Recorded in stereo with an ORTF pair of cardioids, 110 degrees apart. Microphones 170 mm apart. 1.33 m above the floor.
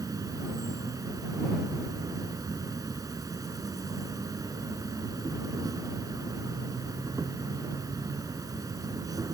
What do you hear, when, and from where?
0.0 s an insect: 20° right